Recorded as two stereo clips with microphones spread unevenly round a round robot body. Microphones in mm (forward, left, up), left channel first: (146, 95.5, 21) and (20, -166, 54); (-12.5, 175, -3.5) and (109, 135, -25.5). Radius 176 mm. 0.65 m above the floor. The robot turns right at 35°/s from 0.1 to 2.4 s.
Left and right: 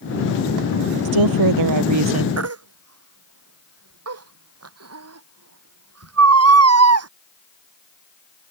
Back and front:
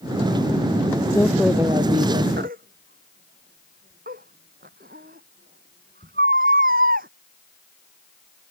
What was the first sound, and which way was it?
A woman speaking, 120° right.